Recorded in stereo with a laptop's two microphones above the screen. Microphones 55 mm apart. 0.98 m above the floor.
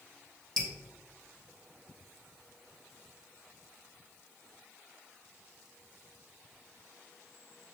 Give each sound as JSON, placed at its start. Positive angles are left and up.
{"t": 0.6, "sound": "dripping", "side_deg": 10, "distance_m": 0.7}